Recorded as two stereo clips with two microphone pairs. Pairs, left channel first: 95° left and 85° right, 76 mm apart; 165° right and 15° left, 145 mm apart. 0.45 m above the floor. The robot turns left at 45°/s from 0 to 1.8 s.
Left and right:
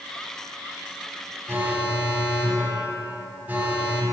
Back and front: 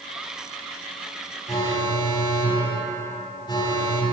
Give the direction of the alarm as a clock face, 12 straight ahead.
4 o'clock.